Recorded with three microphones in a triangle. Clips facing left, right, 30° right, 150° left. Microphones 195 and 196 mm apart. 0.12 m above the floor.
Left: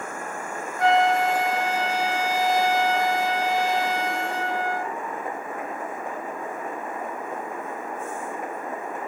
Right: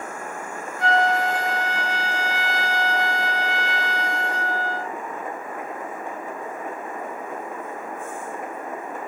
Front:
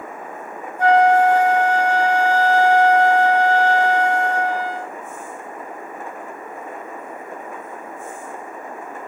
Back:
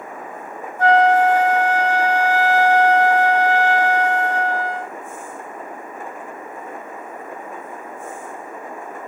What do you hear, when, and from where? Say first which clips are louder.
0.8 s a flute: left 2 dB, even; 50° left, 1.1 m